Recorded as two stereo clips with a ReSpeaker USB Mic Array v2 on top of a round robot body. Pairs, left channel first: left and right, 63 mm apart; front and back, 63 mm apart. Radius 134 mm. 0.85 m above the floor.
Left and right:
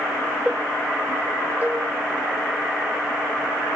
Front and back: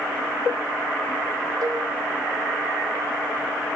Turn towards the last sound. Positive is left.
turn(degrees=-155)